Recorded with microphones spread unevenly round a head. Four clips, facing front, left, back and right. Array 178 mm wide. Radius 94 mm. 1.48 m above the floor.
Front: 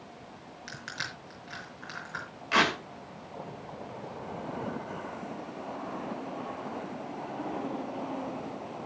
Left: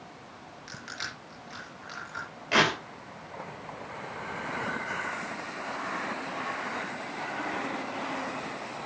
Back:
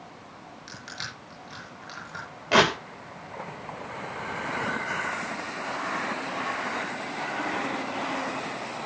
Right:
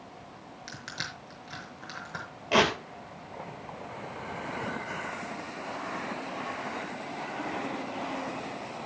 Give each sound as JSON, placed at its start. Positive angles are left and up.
{"t": 0.7, "sound": "crushing", "azimuth_deg": -95, "distance_m": 6.5}
{"t": 2.5, "sound": "tearing paper", "azimuth_deg": -155, "distance_m": 2.5}